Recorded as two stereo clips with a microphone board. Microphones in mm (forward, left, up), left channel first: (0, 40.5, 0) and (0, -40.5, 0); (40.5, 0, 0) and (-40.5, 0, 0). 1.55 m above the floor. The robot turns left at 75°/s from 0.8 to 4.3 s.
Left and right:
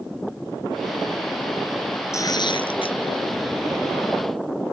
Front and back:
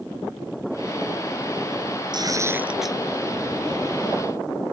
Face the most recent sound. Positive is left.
turn(degrees=-20)